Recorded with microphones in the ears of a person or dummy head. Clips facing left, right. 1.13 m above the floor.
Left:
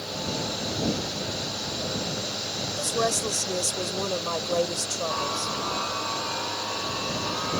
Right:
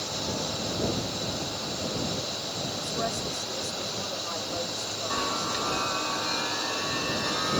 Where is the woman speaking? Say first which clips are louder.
Left 7 dB; 75° left (ahead or behind).